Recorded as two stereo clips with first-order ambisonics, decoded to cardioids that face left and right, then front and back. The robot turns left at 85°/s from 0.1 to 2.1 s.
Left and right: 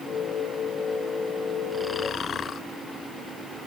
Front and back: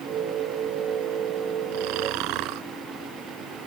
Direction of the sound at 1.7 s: 175° right.